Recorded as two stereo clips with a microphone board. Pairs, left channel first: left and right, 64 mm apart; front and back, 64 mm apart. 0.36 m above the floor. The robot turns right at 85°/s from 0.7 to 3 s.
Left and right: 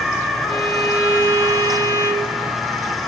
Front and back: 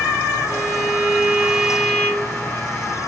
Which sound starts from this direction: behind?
A violin, at 0.5 s.